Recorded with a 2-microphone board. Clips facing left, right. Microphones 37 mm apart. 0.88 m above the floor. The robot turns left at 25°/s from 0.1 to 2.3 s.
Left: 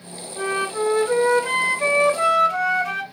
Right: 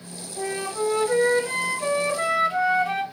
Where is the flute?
130° left, 2.5 m; by 3.0 s 85° left, 2.5 m.